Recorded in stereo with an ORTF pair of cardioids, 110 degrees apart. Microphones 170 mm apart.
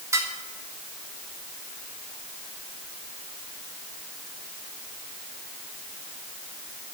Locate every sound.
0.1 s dishes clattering: 15° right, 3 m